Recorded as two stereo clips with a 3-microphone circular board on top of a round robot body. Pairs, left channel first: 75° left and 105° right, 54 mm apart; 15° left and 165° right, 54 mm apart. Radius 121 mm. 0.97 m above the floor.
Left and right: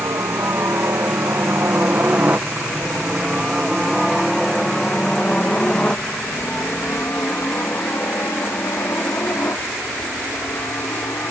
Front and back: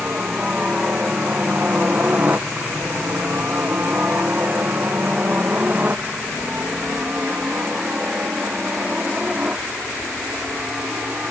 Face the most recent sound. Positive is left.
turn(degrees=125)